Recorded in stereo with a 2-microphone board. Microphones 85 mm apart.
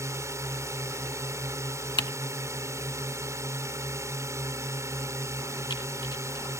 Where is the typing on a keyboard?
65° left (ahead or behind).